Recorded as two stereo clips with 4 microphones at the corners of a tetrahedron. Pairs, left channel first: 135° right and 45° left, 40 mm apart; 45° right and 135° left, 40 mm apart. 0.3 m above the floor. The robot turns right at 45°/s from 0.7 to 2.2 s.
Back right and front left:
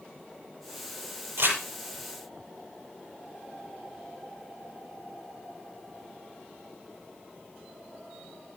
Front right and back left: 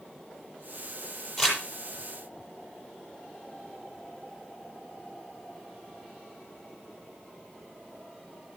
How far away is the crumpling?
About 7.5 m.